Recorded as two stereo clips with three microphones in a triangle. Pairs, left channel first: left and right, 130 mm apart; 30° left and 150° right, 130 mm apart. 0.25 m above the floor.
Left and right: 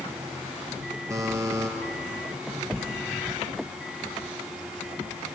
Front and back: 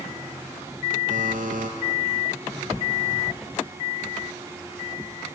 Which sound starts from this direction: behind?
A buzzer, at 1.1 s.